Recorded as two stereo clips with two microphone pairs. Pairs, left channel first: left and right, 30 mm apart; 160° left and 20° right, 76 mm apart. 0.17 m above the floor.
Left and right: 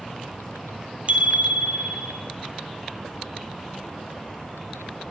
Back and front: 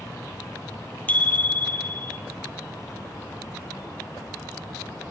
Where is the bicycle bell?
130° right, 3.5 m.